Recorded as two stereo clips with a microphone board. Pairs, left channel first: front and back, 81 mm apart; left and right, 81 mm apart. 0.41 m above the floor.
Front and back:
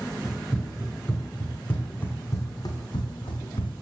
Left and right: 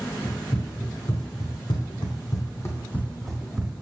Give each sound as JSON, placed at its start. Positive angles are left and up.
{"t": 0.2, "sound": "running footsteps", "azimuth_deg": 100, "distance_m": 3.5}